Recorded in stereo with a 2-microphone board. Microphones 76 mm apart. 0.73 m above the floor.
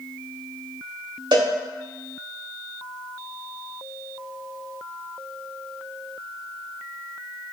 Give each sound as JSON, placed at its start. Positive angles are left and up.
{"t": 1.3, "sound": "a cowbell", "side_deg": -75, "distance_m": 0.9}